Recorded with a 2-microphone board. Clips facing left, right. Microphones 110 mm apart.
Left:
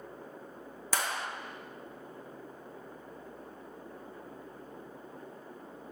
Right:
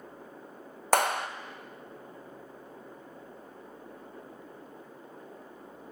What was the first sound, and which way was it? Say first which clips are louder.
A clap: right 9 dB; 60° right (ahead or behind).